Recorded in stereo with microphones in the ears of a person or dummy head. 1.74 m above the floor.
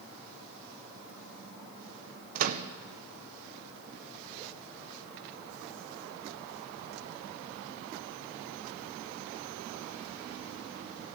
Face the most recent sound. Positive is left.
turn(degrees=-40)  # may be behind; listen again after turning